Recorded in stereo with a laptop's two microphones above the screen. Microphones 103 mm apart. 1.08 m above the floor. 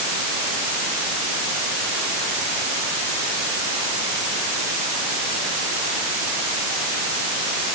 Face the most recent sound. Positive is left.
No sound to turn to.